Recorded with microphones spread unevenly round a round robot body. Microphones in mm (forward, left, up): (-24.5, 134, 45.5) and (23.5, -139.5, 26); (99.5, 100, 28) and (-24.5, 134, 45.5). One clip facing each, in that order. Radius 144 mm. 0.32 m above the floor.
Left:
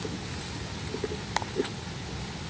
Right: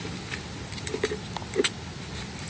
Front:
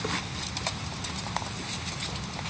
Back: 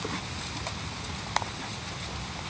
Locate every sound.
Only background noise.